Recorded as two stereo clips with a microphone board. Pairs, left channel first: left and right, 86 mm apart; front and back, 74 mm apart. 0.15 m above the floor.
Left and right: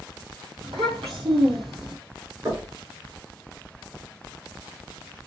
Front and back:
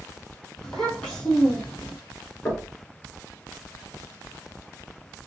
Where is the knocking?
60° right, 2.5 m.